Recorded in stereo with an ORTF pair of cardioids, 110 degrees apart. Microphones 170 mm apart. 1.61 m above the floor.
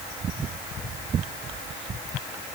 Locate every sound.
Only background noise.